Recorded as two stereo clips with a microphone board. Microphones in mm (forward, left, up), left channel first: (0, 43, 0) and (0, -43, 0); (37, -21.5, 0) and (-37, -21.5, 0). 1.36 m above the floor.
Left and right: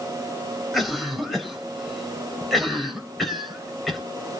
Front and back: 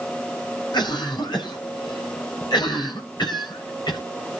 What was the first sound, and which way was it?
A cough, straight ahead.